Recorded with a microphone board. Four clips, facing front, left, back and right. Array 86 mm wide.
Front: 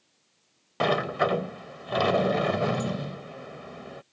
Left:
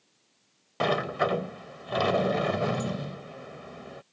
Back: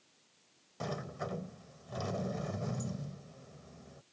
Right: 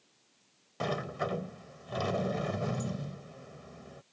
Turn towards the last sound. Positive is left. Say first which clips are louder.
# left 8 dB, front 15 dB
turn(degrees=30)